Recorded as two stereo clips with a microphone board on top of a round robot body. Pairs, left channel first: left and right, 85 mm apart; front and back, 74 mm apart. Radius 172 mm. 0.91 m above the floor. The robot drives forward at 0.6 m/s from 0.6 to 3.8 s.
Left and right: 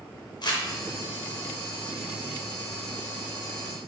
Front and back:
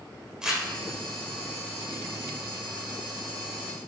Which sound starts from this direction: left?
Crumpling, at 0.4 s.